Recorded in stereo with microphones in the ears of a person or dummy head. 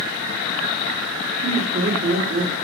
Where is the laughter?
35° right (ahead or behind), 1.4 m.